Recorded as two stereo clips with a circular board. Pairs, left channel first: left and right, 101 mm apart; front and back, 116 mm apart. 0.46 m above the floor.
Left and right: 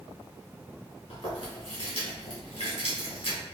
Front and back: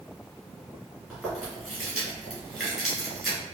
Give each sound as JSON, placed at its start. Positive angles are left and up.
{"t": 1.1, "sound": "chewing", "azimuth_deg": 90, "distance_m": 1.8}